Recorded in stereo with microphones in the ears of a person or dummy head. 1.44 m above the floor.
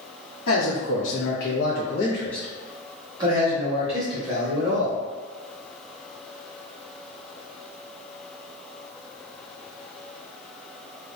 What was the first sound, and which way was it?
A man speaking, 75° left (ahead or behind).